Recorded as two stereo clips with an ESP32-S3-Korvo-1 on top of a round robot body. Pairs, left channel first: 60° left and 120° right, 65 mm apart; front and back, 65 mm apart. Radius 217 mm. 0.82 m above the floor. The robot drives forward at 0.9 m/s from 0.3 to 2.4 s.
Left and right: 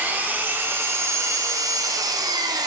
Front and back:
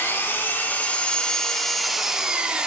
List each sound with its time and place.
0.0 s an engine running: 60° right, 2.5 m; by 2.7 s 105° right, 2.5 m